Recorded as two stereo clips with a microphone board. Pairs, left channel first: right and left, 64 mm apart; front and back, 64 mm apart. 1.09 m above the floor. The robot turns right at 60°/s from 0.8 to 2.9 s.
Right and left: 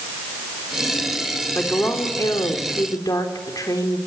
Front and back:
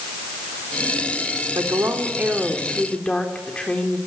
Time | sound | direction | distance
1.6 | a woman speaking | 155° right | 3.5 m